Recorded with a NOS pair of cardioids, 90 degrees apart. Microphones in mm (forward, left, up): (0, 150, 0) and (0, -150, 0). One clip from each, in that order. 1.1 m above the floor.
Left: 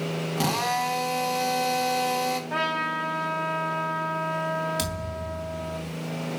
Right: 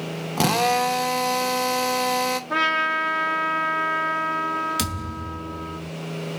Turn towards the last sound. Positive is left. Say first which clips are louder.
# right 2 dB
turn(degrees=-45)